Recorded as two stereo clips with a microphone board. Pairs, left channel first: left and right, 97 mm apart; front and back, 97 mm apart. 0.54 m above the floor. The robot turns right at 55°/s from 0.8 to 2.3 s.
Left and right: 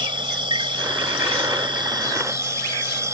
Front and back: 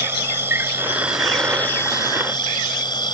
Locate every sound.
0.0 s an insect: 115° right; by 3.1 s 35° right